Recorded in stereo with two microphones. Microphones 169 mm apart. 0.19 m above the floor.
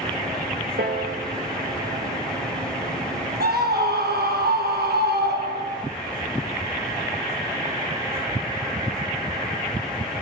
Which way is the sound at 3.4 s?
75° right (ahead or behind).